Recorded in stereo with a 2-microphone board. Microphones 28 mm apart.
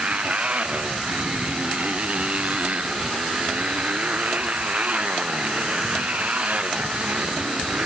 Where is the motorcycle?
55° right (ahead or behind).